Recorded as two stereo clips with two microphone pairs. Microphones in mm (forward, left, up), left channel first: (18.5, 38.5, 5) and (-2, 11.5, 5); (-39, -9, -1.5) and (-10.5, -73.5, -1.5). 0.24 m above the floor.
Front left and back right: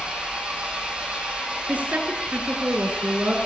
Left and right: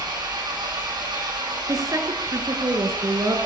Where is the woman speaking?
100° right, 4 m.